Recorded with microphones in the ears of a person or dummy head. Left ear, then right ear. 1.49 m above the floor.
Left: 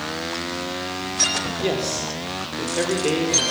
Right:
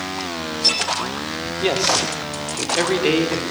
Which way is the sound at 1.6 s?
20° right (ahead or behind).